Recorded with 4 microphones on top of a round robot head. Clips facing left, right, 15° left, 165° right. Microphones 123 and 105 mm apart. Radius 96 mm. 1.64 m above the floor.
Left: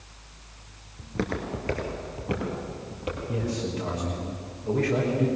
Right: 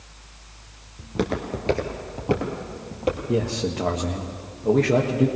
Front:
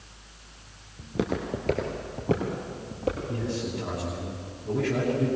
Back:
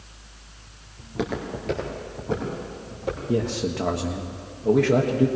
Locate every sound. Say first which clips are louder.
1.0 s footsteps: right 4 dB, even; 30° right, 1.6 m; by 3.2 s 40° right, 3.5 m
3.3 s a man speaking: right 5 dB, back 6 dB; 135° right, 1.5 m